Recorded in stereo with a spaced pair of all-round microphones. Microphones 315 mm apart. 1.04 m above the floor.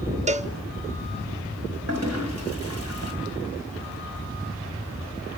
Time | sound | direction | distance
0.3 | a cowbell | 25° right (ahead or behind) | 0.5 m
1.9 | a toilet flushing | 55° right (ahead or behind) | 4.5 m